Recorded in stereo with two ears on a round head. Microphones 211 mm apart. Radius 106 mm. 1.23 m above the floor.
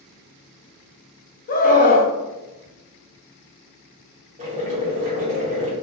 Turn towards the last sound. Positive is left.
turn(degrees=-30)  # may be behind; listen again after turning